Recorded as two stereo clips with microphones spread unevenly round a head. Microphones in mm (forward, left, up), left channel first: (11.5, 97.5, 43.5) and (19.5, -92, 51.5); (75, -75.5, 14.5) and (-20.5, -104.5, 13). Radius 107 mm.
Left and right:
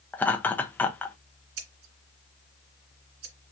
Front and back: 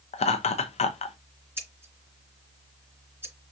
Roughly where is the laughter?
Ahead.